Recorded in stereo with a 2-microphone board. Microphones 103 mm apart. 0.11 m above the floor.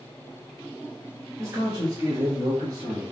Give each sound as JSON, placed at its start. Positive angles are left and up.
{"t": 1.4, "sound": "a man speaking", "side_deg": -30, "distance_m": 1.2}